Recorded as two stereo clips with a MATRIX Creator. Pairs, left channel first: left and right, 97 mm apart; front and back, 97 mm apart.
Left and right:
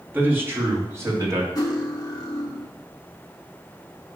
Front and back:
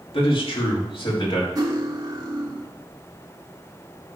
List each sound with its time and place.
0.1 s a man speaking: 20° right, 2.5 m; by 1.4 s 35° right, 3 m
1.6 s cutlery clinking: 135° left, 1.7 m